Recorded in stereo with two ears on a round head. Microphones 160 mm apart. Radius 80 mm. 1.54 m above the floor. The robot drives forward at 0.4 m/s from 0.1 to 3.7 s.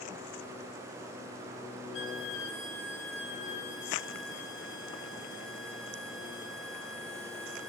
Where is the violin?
75° left (ahead or behind), 1.2 m; by 7.7 s 70° left (ahead or behind), 1.2 m.